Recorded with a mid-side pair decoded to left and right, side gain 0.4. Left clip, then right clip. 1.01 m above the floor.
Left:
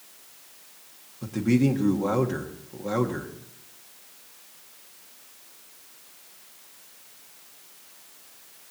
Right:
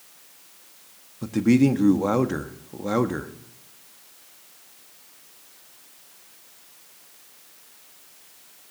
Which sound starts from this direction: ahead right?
A man speaking, at 1.2 s.